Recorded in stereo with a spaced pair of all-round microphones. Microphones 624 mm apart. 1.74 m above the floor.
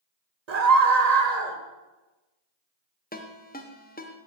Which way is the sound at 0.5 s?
75° right (ahead or behind).